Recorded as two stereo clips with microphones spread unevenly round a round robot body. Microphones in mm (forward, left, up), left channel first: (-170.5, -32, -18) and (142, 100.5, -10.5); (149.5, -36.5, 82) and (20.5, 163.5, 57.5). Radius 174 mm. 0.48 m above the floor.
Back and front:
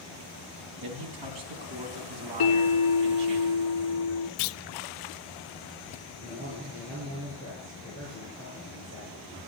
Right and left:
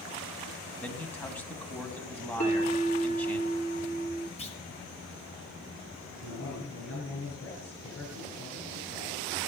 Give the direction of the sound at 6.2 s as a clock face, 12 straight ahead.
1 o'clock.